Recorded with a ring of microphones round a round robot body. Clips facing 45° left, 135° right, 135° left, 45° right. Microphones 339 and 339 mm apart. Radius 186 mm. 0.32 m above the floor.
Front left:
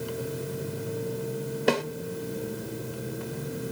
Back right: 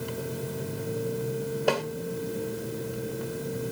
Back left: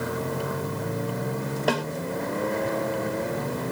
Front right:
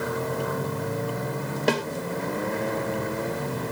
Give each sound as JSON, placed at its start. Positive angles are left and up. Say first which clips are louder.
{"t": 1.7, "sound": "a snare drum", "louder": "front left 2 dB, front right 2 dB", "azimuth_deg": -5, "distance_m": 1.4}